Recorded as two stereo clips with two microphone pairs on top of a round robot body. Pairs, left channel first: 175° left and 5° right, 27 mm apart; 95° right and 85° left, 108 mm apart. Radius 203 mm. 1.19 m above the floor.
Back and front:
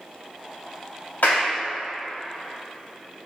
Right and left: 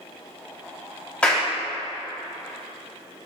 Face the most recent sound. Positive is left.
turn(degrees=-175)